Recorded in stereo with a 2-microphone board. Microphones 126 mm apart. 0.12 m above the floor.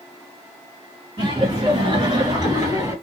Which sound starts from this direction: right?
Laughter, at 1.2 s.